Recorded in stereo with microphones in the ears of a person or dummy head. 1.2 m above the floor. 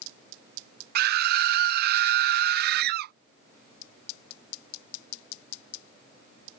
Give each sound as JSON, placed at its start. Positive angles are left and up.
{"t": 0.9, "sound": "a scream", "side_deg": -55}